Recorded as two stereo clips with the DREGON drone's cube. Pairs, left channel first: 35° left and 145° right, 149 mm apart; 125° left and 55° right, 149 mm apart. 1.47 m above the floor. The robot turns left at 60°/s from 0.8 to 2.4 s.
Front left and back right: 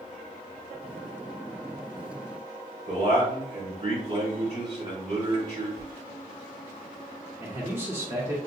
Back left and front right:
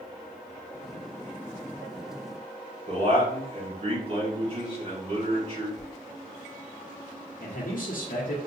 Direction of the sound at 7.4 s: 140° left.